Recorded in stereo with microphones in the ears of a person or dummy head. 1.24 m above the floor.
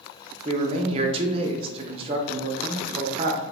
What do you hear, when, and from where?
0.5 s a man speaking: 30° right (ahead or behind), 0.6 m